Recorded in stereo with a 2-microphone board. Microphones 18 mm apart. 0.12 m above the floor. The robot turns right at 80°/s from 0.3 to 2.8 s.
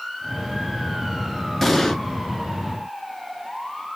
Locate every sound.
1.6 s an explosion: 15° left (ahead or behind), 0.7 m; by 2.0 s 35° left (ahead or behind), 0.7 m